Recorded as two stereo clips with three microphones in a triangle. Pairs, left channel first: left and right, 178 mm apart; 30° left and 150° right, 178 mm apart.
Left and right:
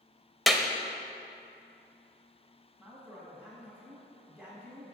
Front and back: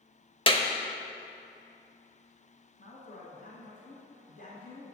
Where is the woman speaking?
5° right, 1.9 m.